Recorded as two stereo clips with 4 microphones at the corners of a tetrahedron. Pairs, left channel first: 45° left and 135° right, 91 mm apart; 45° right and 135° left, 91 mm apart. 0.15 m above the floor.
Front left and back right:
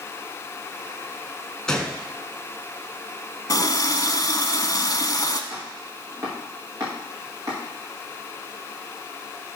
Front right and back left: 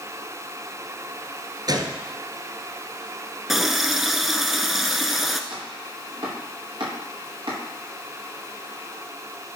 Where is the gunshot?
125° left, 1.4 m.